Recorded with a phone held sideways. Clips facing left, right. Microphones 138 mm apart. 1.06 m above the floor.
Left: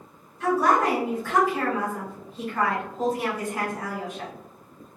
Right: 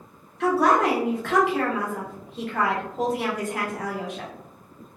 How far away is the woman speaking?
About 0.9 m.